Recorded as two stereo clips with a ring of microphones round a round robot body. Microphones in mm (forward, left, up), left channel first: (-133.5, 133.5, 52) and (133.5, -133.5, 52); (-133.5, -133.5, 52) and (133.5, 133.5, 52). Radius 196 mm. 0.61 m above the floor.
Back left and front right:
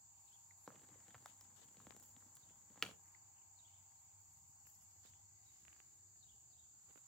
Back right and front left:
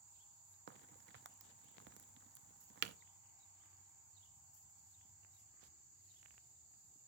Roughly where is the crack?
Ahead left.